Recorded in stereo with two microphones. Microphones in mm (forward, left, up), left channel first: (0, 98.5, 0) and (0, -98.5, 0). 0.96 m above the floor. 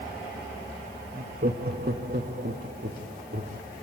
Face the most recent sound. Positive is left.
turn(degrees=-55)  # may be behind; listen again after turning